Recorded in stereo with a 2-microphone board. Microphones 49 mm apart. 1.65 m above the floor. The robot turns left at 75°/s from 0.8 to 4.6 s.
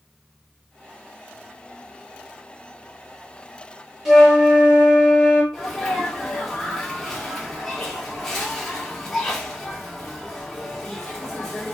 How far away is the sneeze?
About 1.9 m.